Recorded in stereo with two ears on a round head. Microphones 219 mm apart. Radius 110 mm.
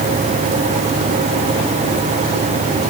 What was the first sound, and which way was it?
Only background noise.